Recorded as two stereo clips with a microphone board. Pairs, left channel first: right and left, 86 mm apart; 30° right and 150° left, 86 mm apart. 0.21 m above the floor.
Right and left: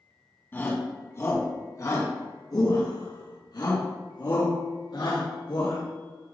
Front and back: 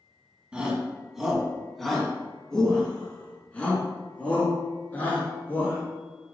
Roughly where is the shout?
Behind right.